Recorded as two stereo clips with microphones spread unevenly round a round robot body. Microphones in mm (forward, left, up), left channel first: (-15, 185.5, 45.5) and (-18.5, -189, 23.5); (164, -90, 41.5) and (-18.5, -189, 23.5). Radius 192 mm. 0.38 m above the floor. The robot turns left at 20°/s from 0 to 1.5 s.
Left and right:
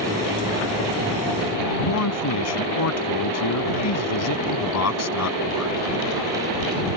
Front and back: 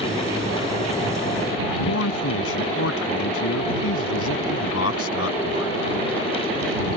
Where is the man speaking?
40° left.